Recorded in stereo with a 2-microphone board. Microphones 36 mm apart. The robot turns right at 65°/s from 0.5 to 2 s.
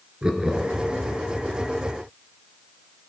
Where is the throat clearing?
No throat clearing in this recording.